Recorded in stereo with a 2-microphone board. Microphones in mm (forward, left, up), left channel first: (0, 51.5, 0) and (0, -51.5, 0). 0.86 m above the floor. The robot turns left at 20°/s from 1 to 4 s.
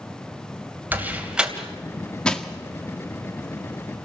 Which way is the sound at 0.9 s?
15° right (ahead or behind).